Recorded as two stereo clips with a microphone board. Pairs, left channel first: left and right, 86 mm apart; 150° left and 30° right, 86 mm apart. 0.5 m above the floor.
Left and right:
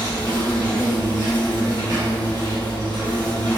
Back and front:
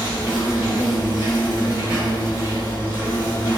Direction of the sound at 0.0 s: 75° right.